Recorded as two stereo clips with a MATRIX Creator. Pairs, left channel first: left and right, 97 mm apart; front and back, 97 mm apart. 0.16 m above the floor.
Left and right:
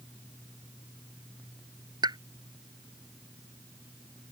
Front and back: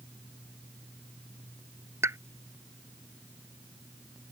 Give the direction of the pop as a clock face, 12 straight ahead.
4 o'clock.